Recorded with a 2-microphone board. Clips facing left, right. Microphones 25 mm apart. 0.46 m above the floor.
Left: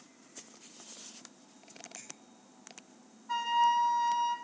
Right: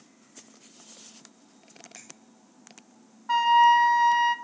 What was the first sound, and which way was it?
A finger snap, 60° right (ahead or behind).